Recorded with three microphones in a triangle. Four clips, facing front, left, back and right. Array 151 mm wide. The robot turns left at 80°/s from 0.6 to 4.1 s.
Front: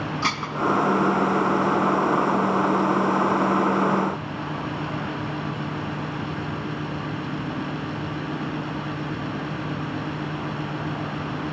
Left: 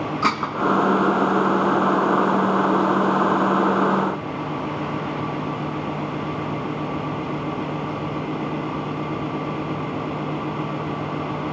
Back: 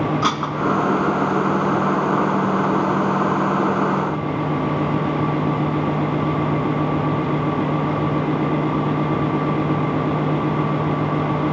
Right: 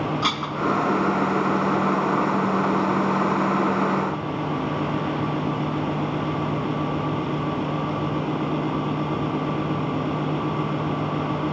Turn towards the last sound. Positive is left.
turn(degrees=-145)